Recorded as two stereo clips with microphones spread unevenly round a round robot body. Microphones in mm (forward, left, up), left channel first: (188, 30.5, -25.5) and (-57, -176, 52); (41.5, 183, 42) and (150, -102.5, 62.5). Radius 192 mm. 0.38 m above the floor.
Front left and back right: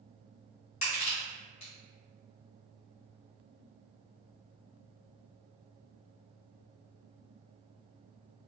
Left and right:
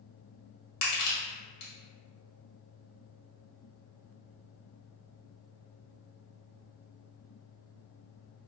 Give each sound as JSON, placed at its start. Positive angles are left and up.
{"t": 0.8, "sound": "crushing", "azimuth_deg": 100, "distance_m": 1.6}